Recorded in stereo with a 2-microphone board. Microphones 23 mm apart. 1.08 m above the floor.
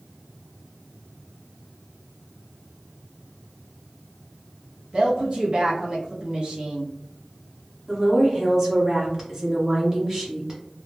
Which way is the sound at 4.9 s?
40° right (ahead or behind).